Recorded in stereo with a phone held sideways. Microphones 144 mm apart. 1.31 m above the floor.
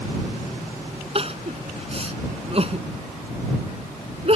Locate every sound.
1.1 s crying: 45° right (ahead or behind)